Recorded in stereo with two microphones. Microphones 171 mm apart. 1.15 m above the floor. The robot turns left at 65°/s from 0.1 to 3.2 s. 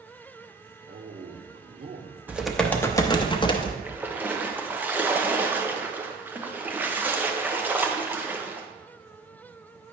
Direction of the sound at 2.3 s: 165° right.